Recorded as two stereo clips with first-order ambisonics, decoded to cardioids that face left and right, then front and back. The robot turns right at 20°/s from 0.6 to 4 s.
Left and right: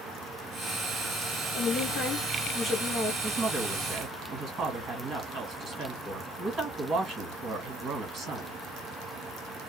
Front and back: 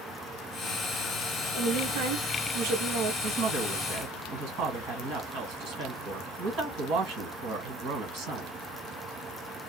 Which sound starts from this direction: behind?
A woman speaking, at 3.2 s.